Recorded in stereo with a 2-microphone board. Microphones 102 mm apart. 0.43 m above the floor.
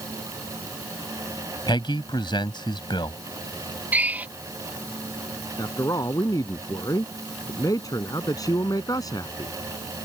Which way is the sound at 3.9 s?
15° right (ahead or behind).